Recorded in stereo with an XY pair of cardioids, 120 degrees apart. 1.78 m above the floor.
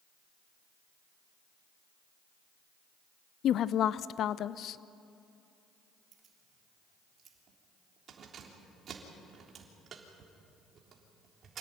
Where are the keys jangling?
45° right, 3.5 m.